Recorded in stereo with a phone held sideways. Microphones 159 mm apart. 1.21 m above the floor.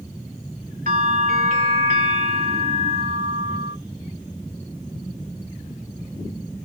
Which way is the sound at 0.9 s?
70° right (ahead or behind).